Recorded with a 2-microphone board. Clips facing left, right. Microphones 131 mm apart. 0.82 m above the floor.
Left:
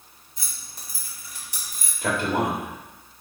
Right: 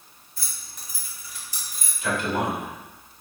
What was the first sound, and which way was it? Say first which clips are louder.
Keys jangling: even; 20° left (ahead or behind).